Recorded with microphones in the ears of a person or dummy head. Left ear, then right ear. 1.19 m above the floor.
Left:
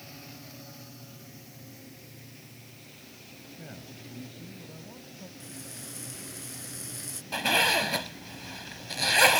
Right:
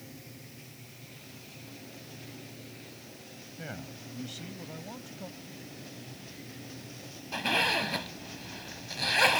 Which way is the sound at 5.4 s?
55° left (ahead or behind).